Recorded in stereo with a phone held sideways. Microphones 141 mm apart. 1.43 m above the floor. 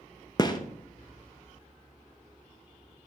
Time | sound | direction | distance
0.4 | a gunshot | 30° left (ahead or behind) | 0.7 m